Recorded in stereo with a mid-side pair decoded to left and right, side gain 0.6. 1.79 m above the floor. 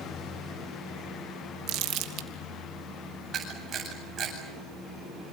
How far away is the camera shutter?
About 8.5 m.